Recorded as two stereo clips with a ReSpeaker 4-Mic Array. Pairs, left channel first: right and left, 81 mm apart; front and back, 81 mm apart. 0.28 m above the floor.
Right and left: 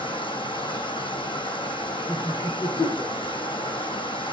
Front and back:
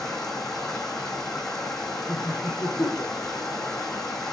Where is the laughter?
55° right, 7.5 m.